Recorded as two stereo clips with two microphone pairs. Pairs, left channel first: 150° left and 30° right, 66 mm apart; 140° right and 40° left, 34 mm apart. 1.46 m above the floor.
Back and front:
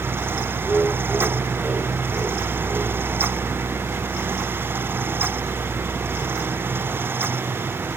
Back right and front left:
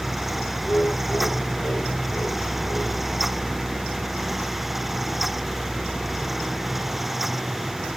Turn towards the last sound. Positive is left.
turn(degrees=-110)